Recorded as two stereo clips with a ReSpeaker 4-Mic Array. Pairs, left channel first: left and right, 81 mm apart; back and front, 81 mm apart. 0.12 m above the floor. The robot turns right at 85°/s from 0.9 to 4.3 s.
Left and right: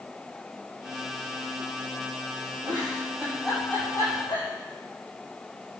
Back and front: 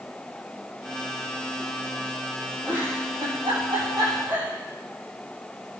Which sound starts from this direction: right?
A giggle, at 2.6 s.